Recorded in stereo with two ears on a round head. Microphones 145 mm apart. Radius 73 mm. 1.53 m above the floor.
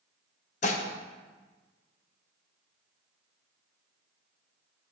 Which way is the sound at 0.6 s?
45° left (ahead or behind).